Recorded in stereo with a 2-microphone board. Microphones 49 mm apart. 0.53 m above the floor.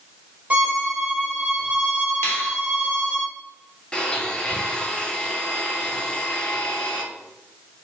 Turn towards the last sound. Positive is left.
turn(degrees=20)  # may be behind; listen again after turning